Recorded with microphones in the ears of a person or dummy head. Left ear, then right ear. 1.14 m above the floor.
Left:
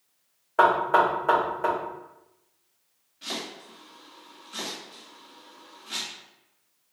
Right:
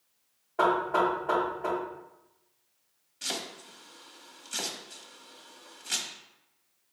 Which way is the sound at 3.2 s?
75° right (ahead or behind).